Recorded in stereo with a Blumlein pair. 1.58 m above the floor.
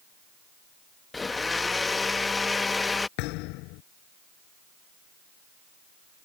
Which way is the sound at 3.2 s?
40° left.